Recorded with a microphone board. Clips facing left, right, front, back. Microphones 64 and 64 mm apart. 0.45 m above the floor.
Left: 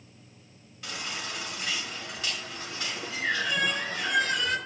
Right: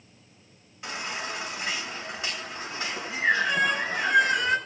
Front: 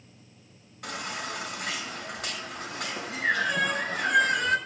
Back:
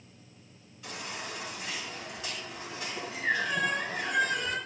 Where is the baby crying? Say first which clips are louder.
Right 3 dB, front 5 dB; 25° right, 4.5 m.